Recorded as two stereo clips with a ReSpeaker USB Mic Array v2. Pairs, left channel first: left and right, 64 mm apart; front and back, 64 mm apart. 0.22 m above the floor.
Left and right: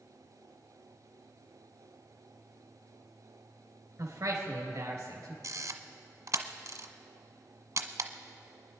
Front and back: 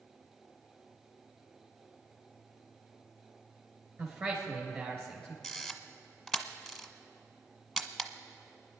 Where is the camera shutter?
90° right, 1.0 m.